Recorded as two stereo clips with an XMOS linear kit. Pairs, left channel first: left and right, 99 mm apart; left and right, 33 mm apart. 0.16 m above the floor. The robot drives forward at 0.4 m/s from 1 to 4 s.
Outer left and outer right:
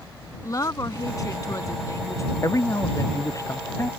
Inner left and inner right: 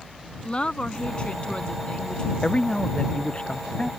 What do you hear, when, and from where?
0.4 s a woman speaking: 35° left (ahead or behind); by 2.3 s 30° left (ahead or behind)
2.4 s a man speaking: 35° left (ahead or behind); by 3.9 s 30° left (ahead or behind)